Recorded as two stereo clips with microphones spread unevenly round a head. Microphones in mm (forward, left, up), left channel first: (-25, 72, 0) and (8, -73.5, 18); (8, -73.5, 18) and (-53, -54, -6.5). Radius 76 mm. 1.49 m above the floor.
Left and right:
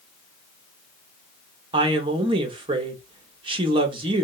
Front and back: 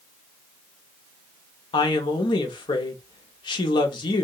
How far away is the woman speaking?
About 0.6 m.